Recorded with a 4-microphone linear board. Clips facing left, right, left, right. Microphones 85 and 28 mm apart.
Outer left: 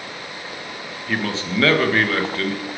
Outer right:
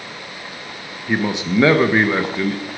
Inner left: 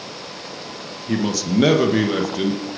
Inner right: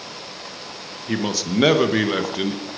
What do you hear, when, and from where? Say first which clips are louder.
1.1 s a man speaking: outer right 4 dB, inner left 2 dB; 15° right (ahead or behind), 1.1 m